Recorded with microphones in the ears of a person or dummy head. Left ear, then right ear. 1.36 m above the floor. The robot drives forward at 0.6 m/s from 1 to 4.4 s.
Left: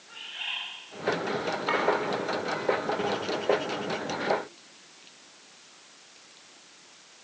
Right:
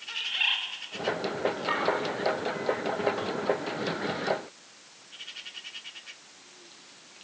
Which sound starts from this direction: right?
A bird, at 0.1 s.